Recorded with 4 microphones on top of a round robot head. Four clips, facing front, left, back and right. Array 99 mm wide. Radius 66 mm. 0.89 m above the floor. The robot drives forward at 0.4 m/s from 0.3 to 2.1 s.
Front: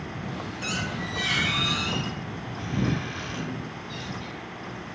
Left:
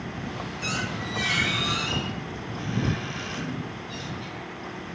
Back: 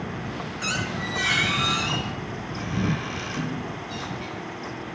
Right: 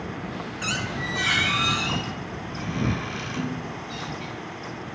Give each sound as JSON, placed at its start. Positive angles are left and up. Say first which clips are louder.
{"t": 0.6, "sound": "a squeak", "louder": "right 2 dB, back 3 dB", "azimuth_deg": -130, "distance_m": 1.6}